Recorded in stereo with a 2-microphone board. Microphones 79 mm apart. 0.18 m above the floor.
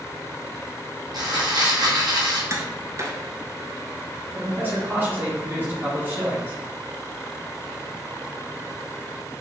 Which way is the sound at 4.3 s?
25° right (ahead or behind).